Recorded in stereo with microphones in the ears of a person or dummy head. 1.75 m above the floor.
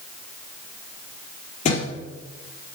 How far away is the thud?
About 4.5 m.